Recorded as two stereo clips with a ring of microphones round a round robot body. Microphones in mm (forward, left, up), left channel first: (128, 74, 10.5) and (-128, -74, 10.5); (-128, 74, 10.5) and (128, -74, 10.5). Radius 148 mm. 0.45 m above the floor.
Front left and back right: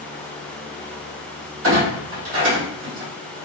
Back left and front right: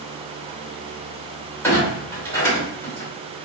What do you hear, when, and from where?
1.6 s a clunk: 130° right, 1.9 m